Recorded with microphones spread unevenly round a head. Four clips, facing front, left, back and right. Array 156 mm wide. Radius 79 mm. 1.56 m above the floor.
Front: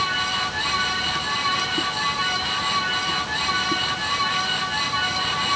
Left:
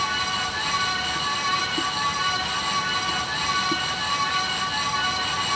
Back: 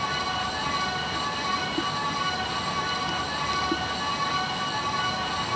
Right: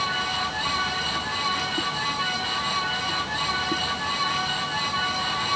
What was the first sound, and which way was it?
Only background noise.